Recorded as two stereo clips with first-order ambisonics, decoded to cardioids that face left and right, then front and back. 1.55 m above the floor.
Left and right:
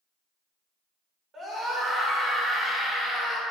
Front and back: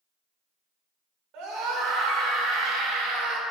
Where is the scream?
155° right, 6 m; by 3.4 s straight behind, 6 m.